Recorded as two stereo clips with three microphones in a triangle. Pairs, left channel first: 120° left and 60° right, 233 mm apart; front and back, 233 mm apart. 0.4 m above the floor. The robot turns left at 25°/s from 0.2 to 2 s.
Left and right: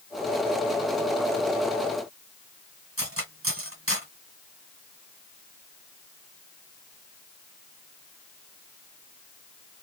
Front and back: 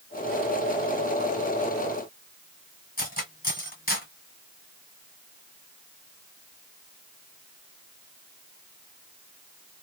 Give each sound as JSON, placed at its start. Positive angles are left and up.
{"t": 3.0, "sound": "cutlery clinking", "azimuth_deg": -50, "distance_m": 1.3}